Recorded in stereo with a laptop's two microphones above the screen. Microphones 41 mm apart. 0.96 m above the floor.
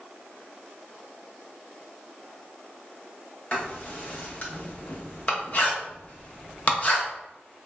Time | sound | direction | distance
3.5 | writing | 35° left (ahead or behind) | 0.6 m